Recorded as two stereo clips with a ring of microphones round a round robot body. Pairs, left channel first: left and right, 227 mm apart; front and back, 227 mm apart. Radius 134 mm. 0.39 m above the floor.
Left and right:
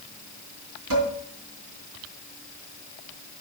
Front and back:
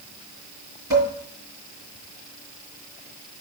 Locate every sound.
0.9 s dishes clattering: 105° right, 4.5 m